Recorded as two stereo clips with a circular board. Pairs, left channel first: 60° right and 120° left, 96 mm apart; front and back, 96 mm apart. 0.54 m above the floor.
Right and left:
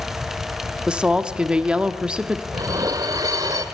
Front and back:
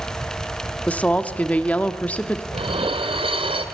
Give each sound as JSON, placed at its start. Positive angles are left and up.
{"t": 0.9, "sound": "a woman speaking", "azimuth_deg": 55, "distance_m": 1.1}
{"t": 2.5, "sound": "dishes clattering", "azimuth_deg": 170, "distance_m": 1.6}